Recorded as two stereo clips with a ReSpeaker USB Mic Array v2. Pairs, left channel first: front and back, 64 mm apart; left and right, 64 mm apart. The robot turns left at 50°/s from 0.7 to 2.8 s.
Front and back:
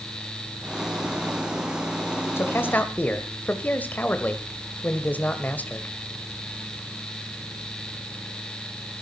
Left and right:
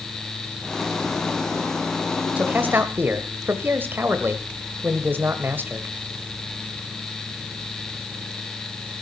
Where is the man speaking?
30° right, 1.4 m; by 6.0 s 50° right, 1.4 m.